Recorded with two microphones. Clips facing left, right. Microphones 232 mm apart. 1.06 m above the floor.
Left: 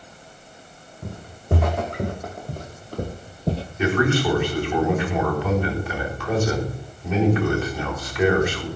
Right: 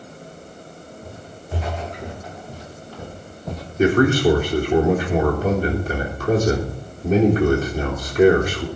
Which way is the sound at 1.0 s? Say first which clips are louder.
Left 5 dB; 65° left (ahead or behind).